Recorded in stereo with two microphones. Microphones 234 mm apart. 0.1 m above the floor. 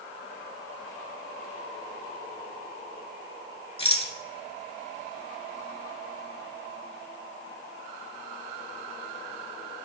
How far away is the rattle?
About 1.3 m.